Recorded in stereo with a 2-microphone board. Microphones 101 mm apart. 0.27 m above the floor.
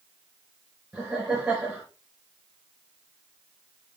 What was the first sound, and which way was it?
Laughter, 10° right (ahead or behind).